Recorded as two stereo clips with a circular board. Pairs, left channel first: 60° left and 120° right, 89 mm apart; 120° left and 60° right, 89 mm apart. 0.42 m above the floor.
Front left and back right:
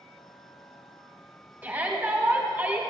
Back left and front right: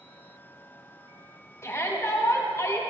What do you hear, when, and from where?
1.6 s a shout: 170° left, 2.5 m